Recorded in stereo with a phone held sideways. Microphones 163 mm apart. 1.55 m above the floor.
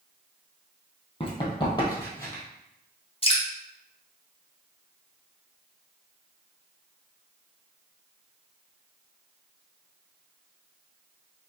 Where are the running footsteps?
35° left (ahead or behind), 1.8 m; by 2.4 s 15° left (ahead or behind), 1.9 m.